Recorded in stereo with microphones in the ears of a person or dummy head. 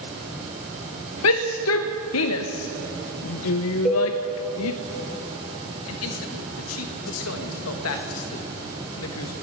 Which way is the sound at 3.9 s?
Centre (ahead or behind).